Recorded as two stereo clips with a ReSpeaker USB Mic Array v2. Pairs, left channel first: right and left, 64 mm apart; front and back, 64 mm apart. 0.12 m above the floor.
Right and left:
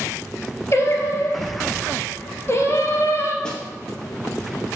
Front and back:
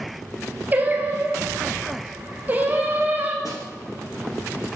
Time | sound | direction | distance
0.7 | singing | 125° right | 1.1 m
3.5 | a snare drum | 15° right | 1.9 m